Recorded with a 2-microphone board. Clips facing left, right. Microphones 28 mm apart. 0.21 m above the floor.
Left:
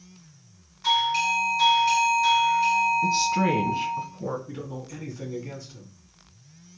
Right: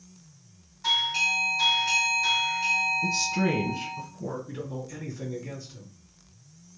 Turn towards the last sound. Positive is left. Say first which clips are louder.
# even
turn(degrees=5)  # may be behind; listen again after turning